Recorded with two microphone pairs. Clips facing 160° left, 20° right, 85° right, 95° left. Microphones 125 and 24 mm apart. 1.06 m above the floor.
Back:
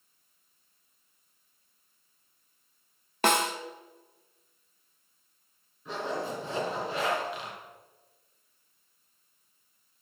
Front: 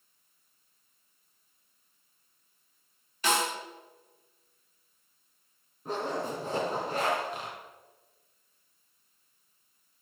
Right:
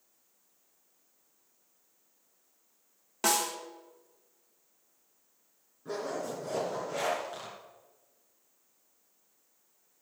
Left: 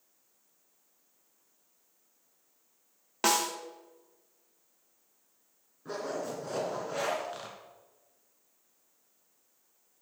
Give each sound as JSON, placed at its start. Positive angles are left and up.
{"t": 3.2, "sound": "a snare drum", "azimuth_deg": 160, "distance_m": 1.0}
{"t": 5.8, "sound": "a zipper", "azimuth_deg": 20, "distance_m": 2.5}